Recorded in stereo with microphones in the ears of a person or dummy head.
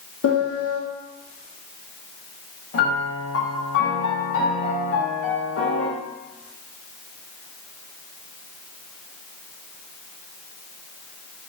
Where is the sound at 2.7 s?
80° left, 1.1 m.